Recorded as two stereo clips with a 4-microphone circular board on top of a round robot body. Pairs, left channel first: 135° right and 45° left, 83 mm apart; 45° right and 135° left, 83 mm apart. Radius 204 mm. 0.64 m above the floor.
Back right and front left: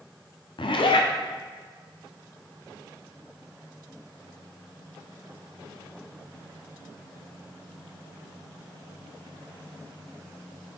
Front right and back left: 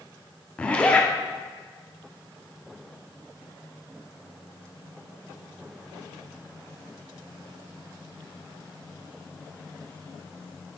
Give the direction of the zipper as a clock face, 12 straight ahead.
4 o'clock.